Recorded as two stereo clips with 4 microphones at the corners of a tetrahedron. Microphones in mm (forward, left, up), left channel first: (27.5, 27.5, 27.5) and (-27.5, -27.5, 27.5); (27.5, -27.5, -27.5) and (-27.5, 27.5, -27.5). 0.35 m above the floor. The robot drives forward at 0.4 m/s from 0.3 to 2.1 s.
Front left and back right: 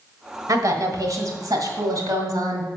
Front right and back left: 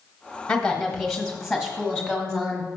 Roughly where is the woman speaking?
Behind right.